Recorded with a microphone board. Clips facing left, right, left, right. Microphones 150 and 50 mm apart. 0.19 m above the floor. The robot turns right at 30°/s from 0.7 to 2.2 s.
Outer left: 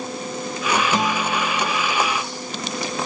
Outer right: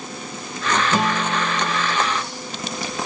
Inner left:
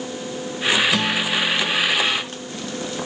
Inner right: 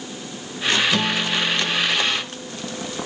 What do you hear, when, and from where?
0.9 s a guitar: 10° right (ahead or behind), 1.4 m; by 2.0 s 5° left (ahead or behind), 1.4 m